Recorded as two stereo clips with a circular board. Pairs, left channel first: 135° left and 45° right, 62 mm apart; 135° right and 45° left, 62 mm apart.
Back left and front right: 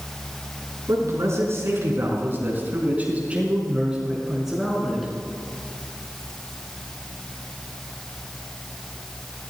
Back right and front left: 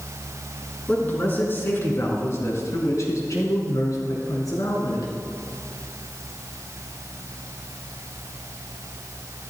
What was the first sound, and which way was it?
A man speaking, 75° right.